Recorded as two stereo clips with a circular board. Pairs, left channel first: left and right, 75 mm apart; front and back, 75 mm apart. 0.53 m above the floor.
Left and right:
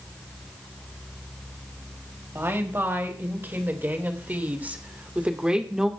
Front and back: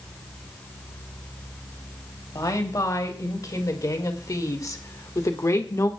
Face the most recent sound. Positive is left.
turn(degrees=-10)